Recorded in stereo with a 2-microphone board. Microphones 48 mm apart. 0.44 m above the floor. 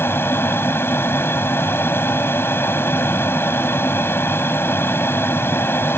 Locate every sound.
0.0 s an aircraft: 45° left (ahead or behind)